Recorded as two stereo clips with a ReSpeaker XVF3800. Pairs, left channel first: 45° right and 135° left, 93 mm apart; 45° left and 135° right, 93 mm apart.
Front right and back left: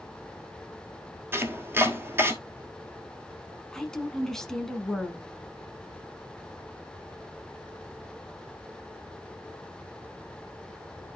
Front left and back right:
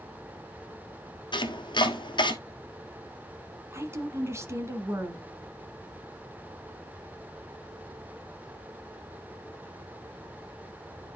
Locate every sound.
1.3 s chopping: 70° left, 1.4 m
3.7 s a woman speaking: 125° right, 1.4 m